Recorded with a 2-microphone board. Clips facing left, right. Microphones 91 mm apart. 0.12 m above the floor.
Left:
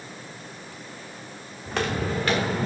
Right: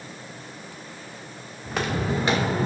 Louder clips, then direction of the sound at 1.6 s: Even; centre (ahead or behind).